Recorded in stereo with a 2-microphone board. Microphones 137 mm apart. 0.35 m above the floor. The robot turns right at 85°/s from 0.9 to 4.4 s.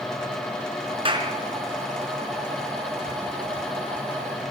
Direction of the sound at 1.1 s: 40° right (ahead or behind).